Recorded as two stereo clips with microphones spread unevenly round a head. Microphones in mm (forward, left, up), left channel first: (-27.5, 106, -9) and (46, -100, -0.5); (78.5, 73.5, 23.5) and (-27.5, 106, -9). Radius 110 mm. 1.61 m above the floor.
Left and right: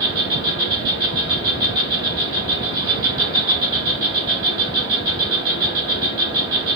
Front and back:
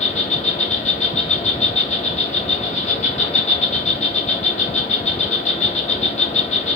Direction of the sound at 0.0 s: Straight ahead.